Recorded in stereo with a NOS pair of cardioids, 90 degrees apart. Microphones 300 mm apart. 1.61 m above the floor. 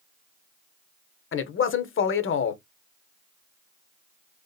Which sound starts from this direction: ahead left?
A man speaking, at 1.3 s.